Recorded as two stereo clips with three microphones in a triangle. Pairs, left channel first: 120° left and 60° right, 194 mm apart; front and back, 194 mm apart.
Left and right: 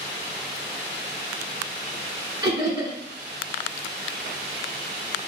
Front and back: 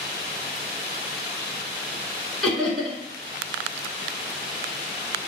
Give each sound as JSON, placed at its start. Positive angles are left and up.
{"t": 2.4, "sound": "laughter", "azimuth_deg": -85, "distance_m": 1.1}